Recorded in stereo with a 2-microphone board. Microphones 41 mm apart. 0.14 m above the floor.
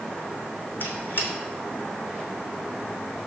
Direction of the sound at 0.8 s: 50° left (ahead or behind).